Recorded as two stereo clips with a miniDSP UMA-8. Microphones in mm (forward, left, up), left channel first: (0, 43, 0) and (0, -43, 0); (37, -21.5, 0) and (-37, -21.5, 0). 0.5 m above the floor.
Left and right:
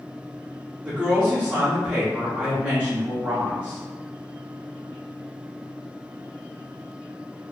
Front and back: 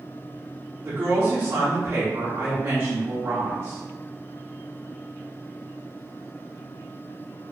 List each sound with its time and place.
0.8 s a woman speaking: 150° right, 0.8 m